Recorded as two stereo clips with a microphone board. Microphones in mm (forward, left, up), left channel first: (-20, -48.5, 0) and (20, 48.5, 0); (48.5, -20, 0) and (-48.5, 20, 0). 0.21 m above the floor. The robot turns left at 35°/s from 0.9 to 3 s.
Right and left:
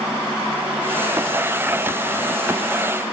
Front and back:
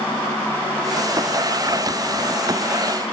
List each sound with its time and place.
Only background noise.